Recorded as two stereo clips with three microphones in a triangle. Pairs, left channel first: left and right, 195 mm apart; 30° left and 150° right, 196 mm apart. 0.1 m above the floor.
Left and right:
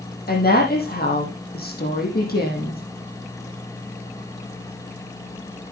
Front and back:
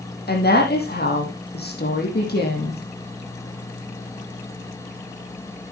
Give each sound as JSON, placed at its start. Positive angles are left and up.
{"t": 0.3, "sound": "a woman speaking", "azimuth_deg": 60, "distance_m": 4.5}